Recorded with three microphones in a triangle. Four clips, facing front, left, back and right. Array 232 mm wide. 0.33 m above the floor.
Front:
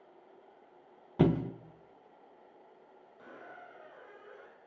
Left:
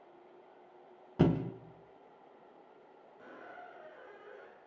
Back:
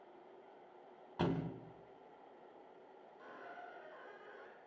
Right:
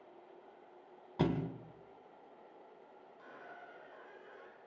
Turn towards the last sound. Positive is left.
turn(degrees=30)